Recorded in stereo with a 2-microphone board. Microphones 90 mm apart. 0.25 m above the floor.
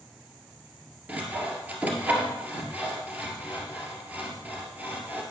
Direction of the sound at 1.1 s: 20° right (ahead or behind).